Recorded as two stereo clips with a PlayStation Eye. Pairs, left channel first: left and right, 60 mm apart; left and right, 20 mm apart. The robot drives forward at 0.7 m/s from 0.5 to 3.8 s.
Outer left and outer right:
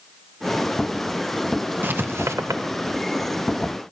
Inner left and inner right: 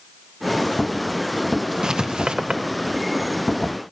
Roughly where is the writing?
Right.